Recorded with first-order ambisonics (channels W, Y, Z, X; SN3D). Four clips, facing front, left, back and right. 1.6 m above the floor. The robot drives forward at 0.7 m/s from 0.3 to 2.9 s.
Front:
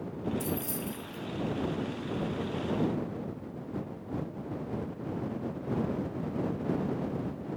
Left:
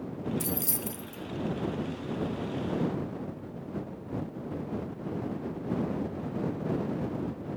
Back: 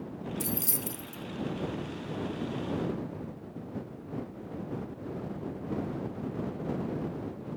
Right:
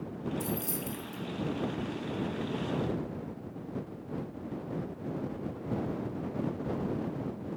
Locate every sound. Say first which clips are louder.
0.4 s keys jangling: left 1 dB, front 1 dB; 130° left, 0.6 m; by 1.2 s 160° left, 0.9 m